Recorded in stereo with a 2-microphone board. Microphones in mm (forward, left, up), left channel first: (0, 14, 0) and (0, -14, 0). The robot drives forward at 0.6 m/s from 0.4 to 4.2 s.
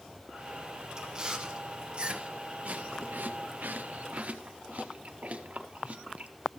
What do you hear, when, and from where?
1.0 s chewing: 20° right (ahead or behind), 1.7 m; by 6.3 s 55° right (ahead or behind), 0.7 m